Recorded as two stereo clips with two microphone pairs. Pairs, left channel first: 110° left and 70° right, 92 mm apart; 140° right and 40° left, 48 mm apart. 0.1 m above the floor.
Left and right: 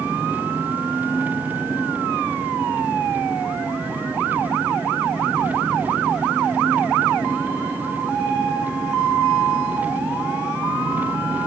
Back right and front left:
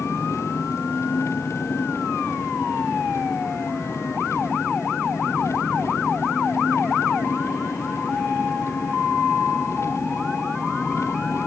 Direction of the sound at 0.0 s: 140° right.